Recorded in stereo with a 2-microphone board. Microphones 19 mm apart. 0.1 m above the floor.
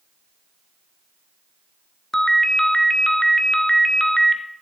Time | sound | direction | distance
2.1 | a ringtone | 25° left (ahead or behind) | 1.1 m